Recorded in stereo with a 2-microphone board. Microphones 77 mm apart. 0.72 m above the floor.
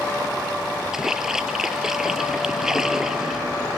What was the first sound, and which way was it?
A splash, 5° right (ahead or behind).